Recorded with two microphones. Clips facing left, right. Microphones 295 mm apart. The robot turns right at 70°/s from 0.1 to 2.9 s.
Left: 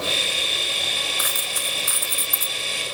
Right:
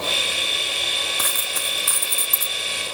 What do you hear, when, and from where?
1.2 s a dropped coin: 115° right, 0.8 m; by 2.5 s 20° right, 0.8 m